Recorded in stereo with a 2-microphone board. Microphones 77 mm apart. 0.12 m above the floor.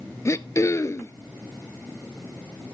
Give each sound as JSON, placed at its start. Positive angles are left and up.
{"t": 0.2, "sound": "throat clearing", "side_deg": 40, "distance_m": 0.6}